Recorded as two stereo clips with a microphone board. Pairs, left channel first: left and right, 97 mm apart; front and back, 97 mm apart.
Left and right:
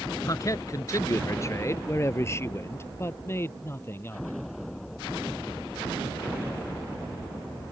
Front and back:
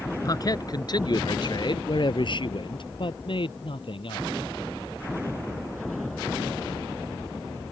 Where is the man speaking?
45° left; by 4.4 s 25° left.